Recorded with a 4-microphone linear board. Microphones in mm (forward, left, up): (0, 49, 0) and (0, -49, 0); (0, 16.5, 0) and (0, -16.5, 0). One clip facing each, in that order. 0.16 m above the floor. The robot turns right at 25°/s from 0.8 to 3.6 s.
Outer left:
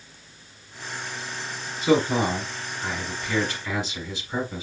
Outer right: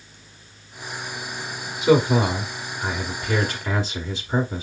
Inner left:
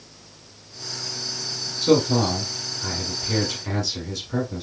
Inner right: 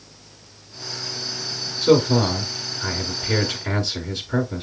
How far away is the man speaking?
About 1.1 m.